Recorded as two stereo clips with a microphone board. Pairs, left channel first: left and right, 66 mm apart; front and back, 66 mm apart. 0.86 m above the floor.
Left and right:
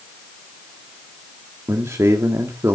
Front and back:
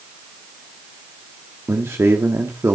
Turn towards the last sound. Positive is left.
turn(degrees=-135)